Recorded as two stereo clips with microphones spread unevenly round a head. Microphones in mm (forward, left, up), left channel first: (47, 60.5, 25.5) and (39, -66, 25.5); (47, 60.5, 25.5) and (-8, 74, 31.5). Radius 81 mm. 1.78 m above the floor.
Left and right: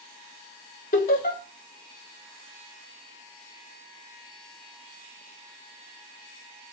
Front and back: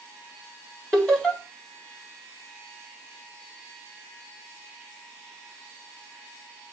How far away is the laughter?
About 4 m.